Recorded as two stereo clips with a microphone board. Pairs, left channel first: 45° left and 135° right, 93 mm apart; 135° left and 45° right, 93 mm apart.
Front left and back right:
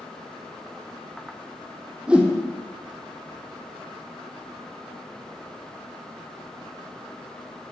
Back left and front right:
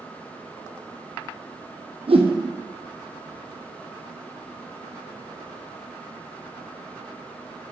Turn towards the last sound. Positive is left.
turn(degrees=-55)